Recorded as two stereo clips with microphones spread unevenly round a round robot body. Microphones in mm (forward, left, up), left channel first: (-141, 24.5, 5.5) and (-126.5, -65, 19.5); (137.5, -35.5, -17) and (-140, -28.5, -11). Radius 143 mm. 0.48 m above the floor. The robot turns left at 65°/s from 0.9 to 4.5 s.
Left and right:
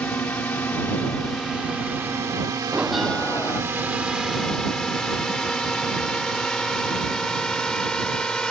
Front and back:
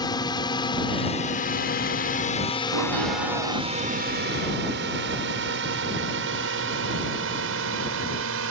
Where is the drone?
55° left; by 8.5 s 175° left.